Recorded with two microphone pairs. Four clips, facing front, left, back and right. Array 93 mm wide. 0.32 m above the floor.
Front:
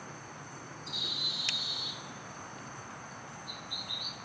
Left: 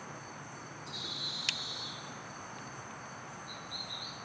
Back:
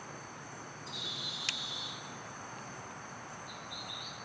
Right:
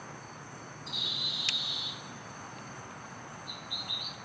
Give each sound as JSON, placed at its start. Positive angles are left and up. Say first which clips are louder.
{"t": 0.9, "sound": "a bird", "louder": "right 3 dB, front 3 dB", "azimuth_deg": -75, "distance_m": 1.2}